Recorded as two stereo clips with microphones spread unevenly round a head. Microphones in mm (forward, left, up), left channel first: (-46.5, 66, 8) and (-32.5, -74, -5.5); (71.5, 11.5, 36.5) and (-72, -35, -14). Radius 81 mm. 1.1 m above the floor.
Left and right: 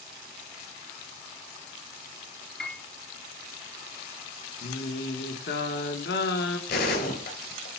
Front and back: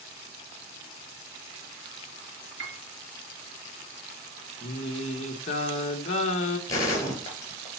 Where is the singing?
75° left, 1.2 m.